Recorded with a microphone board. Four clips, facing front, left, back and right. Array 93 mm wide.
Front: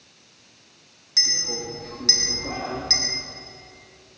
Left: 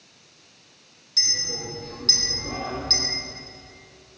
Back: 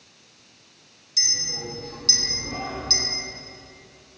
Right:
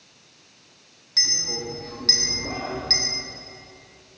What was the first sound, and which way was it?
A clink, 40° right.